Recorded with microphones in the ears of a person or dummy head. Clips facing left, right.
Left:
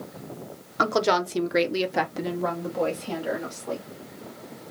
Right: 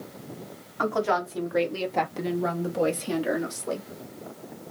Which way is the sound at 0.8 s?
55° left (ahead or behind).